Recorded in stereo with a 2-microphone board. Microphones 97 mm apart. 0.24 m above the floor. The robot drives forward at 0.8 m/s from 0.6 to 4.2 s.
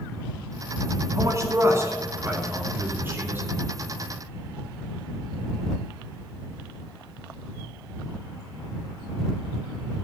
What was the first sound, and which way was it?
A man speaking, 35° right (ahead or behind).